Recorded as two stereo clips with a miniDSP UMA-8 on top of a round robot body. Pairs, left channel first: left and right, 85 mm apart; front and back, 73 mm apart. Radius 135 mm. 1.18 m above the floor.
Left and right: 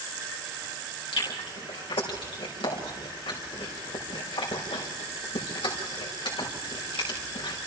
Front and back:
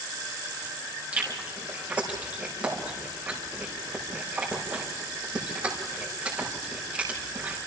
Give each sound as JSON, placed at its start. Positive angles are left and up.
{"t": 1.1, "sound": "chewing", "azimuth_deg": 105, "distance_m": 5.0}